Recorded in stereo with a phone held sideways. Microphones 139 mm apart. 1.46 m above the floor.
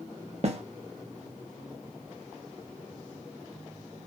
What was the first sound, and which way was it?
A snare drum, 50° right (ahead or behind).